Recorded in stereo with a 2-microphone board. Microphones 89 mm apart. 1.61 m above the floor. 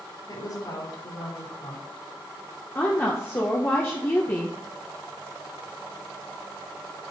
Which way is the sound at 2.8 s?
25° left (ahead or behind).